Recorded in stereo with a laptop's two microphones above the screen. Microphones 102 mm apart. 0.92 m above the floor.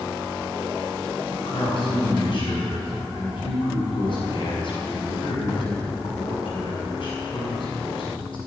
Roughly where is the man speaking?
Left.